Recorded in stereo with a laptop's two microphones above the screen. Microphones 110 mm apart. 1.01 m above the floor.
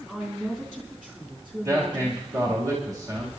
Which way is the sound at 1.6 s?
30° right (ahead or behind).